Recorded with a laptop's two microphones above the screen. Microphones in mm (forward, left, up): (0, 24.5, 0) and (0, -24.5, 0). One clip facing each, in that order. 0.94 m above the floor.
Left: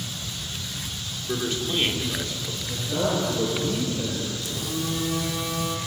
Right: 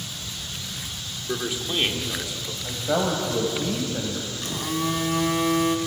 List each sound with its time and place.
1.3 s a man speaking: 10° right (ahead or behind), 2 m
2.6 s a man speaking: 75° right (ahead or behind), 5.5 m
4.4 s a phone buzzing: 50° right (ahead or behind), 2 m